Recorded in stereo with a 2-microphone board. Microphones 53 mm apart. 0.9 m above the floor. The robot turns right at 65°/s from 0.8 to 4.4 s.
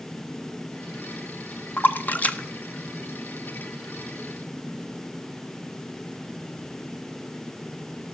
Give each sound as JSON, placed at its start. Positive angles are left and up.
{"t": 1.8, "sound": "a splash", "side_deg": 45, "distance_m": 0.7}